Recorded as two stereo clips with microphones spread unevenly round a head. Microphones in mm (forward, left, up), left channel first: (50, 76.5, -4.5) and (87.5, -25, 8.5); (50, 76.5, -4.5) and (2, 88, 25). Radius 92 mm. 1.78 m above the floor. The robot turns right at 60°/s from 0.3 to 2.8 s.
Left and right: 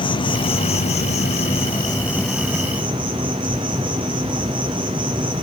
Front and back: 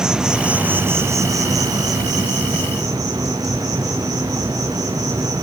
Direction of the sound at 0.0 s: 75° left.